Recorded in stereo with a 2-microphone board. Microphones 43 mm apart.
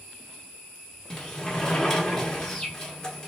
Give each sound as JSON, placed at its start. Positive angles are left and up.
{"t": 1.1, "sound": "a sliding door", "side_deg": 15, "distance_m": 1.3}